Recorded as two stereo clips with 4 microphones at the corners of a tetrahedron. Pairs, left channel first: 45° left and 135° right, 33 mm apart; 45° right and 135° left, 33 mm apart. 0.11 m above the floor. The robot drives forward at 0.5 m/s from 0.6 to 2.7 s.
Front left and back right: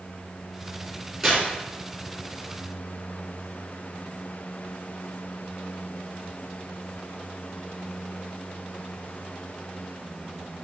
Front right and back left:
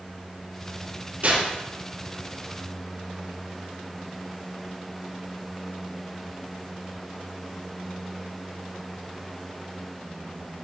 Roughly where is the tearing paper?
Behind left.